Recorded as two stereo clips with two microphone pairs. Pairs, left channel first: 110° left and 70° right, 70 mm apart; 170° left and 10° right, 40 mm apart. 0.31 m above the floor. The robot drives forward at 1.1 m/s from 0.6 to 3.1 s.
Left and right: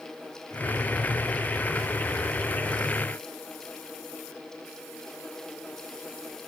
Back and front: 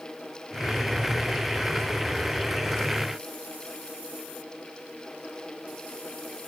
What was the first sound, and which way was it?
Only background noise.